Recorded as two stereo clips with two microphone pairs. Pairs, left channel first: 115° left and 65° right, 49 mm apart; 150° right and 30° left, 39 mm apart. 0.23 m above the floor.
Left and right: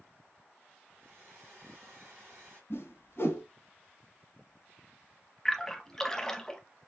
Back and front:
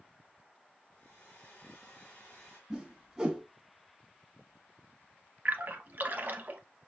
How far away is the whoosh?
About 1.3 m.